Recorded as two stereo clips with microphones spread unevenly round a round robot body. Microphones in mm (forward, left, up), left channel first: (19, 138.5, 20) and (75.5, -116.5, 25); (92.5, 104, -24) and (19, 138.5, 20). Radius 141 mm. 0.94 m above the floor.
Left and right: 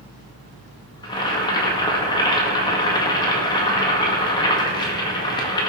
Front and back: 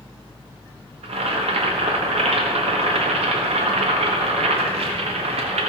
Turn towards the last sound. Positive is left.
turn(degrees=175)